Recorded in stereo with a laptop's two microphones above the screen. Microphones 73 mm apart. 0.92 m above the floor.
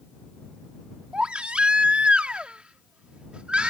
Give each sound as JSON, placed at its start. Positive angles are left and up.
{"t": 1.1, "sound": "a baby crying", "side_deg": -15}